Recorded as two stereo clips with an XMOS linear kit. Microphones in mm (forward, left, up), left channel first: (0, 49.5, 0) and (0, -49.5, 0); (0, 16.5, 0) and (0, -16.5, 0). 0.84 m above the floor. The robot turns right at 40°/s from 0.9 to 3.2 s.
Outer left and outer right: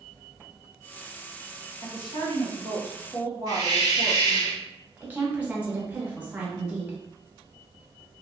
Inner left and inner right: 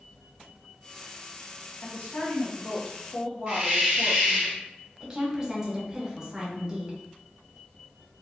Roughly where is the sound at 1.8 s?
Left.